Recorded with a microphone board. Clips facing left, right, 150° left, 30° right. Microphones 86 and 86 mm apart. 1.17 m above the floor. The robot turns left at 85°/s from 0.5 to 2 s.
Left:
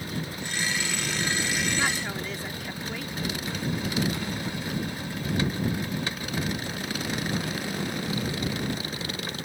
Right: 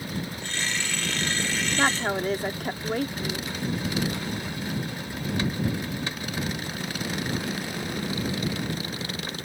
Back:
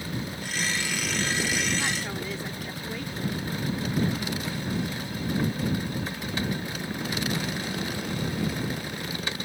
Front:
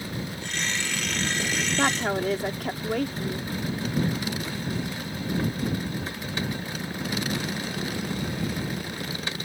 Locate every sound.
1.8 s a woman speaking: 30° right; by 3.4 s 50° right